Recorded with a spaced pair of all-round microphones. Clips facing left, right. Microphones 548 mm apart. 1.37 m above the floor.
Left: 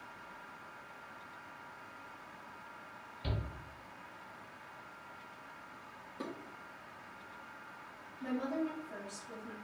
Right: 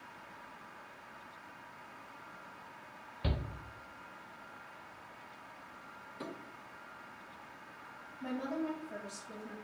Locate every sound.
3.2 s a shout: 75° right (ahead or behind), 0.7 m
6.2 s dishes clattering: 65° left (ahead or behind), 1.2 m
8.2 s a woman speaking: 25° right (ahead or behind), 2 m